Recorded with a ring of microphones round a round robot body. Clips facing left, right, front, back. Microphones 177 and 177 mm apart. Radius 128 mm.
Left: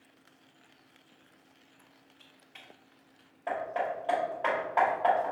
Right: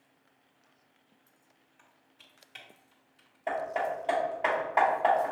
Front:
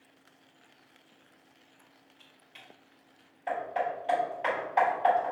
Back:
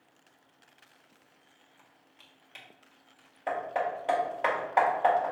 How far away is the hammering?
About 1.7 m.